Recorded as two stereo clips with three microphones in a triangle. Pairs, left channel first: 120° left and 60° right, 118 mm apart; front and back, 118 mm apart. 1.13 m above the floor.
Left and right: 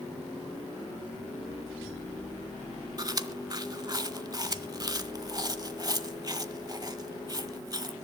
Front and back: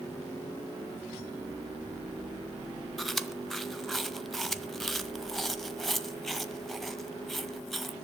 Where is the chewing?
90° right, 1.1 m.